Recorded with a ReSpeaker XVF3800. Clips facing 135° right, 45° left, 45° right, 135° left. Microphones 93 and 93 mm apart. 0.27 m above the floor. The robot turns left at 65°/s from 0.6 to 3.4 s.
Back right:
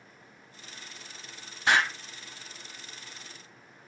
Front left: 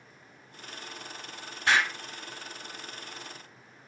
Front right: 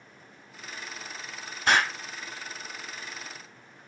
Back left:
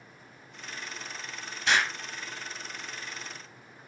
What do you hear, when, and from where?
1.7 s an explosion: 70° right, 0.8 m; by 1.9 s 90° right, 0.8 m